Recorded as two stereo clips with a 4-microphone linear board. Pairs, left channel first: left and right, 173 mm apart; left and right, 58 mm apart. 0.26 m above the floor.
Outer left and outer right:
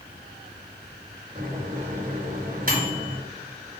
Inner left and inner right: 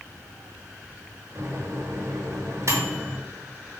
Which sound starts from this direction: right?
A microwave, at 1.4 s.